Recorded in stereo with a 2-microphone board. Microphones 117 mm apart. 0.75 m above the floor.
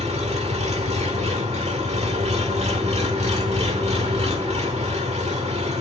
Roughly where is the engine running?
Right.